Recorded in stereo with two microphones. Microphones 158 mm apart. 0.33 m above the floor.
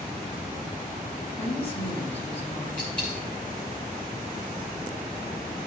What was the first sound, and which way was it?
A woman speaking, 45° left (ahead or behind).